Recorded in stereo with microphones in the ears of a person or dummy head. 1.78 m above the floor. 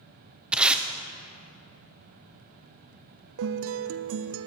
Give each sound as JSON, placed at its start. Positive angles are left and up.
{"t": 0.5, "sound": "tape being pulled", "side_deg": -10, "distance_m": 0.8}
{"t": 3.4, "sound": "a guitar", "side_deg": -70, "distance_m": 0.5}